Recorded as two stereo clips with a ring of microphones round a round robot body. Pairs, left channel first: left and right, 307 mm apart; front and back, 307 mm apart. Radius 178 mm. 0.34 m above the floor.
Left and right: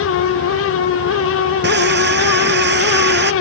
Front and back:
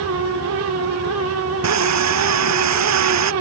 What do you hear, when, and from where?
1.6 s sawing: 145° right